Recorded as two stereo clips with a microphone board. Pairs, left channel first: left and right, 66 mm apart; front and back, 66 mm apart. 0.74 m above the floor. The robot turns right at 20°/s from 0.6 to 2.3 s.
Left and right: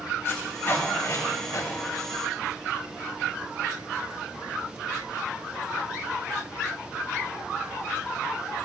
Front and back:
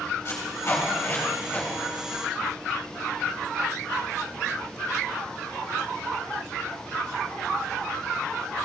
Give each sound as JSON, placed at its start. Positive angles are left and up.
{"t": 0.2, "sound": "tape being pulled", "azimuth_deg": 40, "distance_m": 3.0}